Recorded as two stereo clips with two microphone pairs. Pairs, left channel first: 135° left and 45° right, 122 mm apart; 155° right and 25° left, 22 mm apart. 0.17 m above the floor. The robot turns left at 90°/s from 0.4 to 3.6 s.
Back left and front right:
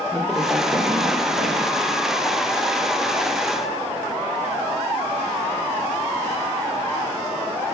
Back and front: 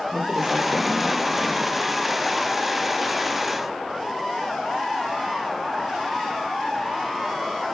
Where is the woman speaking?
50° left, 4 m; by 1.7 s 65° right, 4 m.